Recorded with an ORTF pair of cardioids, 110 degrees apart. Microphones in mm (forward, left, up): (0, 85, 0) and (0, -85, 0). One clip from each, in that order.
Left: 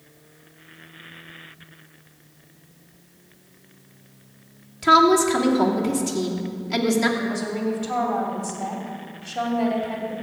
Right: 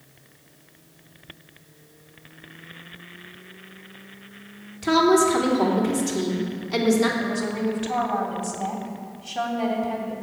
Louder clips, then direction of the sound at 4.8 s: Left 3 dB; 20° left.